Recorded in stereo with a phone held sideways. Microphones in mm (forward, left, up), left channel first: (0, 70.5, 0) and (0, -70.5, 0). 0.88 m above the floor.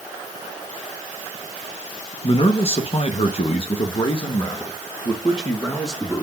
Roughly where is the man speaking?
Left.